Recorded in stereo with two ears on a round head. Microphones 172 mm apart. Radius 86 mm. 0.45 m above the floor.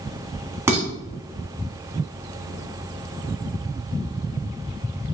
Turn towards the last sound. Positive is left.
turn(degrees=-15)  # may be behind; listen again after turning